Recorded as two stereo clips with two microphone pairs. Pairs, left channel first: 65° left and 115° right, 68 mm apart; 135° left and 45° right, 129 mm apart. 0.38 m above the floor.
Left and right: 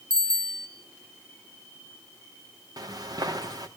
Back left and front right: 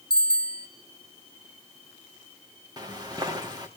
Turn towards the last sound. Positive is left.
turn(degrees=-105)